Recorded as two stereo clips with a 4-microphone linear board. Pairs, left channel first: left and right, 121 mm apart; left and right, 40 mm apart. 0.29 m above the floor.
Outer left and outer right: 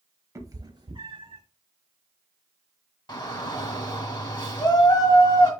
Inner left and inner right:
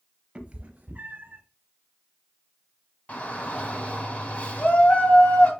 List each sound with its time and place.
0.3 s a cat meowing: 25° right (ahead or behind), 0.8 m; by 1.4 s 50° right (ahead or behind), 1.3 m
3.1 s a shout: 40° left (ahead or behind), 1.9 m